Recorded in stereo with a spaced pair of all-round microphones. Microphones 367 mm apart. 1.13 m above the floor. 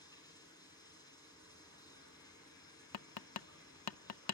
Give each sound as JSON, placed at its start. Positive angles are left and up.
{"t": 0.0, "sound": "running water", "side_deg": 10, "distance_m": 5.0}
{"t": 2.9, "sound": "tapping", "side_deg": 85, "distance_m": 0.5}